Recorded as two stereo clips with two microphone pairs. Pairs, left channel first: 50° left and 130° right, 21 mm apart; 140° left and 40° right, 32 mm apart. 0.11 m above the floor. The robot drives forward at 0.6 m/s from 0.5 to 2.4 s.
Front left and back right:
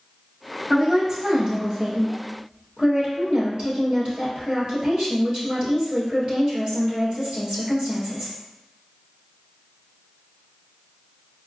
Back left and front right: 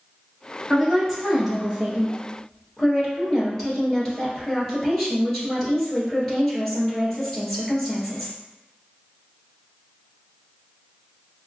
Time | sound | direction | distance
0.7 | a woman speaking | 90° right | 1.3 m